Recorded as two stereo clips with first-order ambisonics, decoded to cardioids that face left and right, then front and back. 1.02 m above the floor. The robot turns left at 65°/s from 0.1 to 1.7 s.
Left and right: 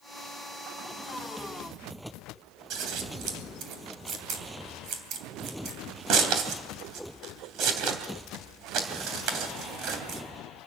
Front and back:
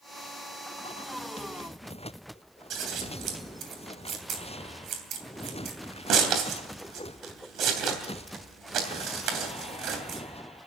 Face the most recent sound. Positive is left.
turn(degrees=-130)